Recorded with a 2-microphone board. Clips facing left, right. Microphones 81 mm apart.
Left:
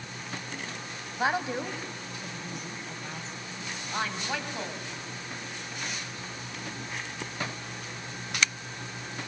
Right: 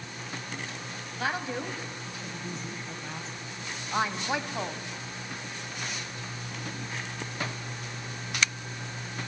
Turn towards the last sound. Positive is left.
turn(degrees=-25)  # may be behind; listen again after turning